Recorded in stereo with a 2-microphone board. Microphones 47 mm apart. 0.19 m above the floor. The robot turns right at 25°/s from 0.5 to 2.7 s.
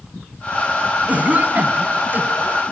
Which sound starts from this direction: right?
A cough, at 1.1 s.